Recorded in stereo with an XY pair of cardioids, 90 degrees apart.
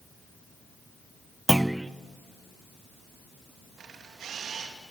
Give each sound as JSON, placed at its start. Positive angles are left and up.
{"t": 1.5, "sound": "a clunk", "azimuth_deg": -10, "distance_m": 0.5}
{"t": 3.8, "sound": "a camera shutter", "azimuth_deg": -70, "distance_m": 2.5}